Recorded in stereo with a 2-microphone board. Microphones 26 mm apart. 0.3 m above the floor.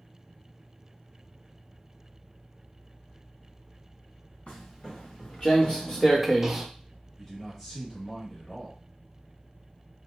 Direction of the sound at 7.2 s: 15° left (ahead or behind).